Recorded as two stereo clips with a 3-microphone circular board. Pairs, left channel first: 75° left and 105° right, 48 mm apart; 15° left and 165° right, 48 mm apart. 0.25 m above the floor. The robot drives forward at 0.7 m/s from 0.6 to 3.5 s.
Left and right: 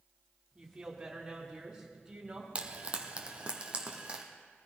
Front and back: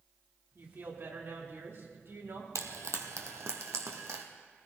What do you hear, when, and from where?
0.6 s a woman speaking: 175° right, 2.5 m
2.5 s frying: 165° right, 1.0 m; by 4.2 s 170° right, 1.7 m